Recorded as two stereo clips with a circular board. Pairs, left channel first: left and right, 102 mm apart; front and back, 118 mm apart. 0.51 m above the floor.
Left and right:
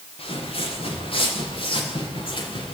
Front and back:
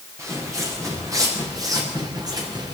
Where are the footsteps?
115° left, 8 m; by 2.7 s 125° left, 8 m.